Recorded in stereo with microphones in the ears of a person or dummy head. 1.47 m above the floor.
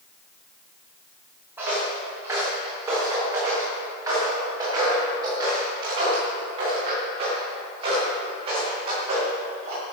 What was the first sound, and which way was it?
Footsteps, 15° right (ahead or behind).